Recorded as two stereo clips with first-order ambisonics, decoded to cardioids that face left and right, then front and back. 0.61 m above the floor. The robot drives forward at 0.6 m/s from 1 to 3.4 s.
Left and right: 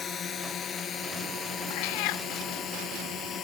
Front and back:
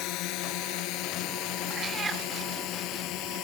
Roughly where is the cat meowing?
Left.